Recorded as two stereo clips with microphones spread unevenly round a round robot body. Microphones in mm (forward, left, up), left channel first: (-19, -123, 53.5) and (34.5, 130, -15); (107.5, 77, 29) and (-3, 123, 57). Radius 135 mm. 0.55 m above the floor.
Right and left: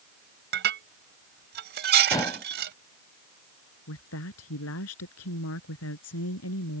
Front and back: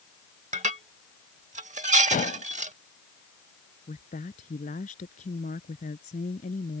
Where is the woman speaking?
65° right.